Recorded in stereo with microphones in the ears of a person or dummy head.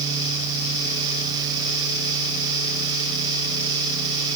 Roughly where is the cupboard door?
I don't hear a cupboard door.